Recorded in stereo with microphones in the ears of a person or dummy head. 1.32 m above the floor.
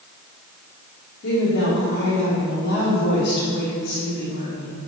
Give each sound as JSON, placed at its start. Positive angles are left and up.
{"t": 1.2, "sound": "a woman speaking", "side_deg": 55, "distance_m": 4.0}